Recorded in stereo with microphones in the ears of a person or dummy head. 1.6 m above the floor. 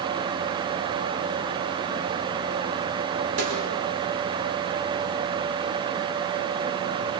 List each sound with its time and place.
3.4 s a snare drum: 85° right, 7 m